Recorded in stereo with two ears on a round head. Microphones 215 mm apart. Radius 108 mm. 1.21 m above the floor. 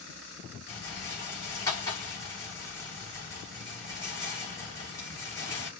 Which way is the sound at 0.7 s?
15° left (ahead or behind).